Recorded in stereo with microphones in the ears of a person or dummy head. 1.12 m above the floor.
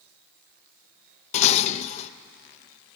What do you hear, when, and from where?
1.3 s dishes clattering: 40° left (ahead or behind), 0.6 m